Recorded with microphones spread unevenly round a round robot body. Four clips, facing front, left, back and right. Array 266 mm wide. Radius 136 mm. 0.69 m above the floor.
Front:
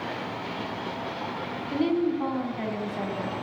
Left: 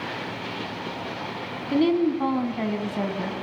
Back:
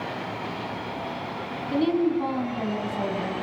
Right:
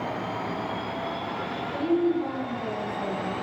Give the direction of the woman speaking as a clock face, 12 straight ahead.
9 o'clock.